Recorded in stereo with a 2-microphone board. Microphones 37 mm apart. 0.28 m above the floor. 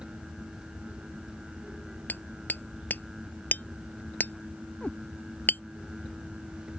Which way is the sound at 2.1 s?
60° left (ahead or behind).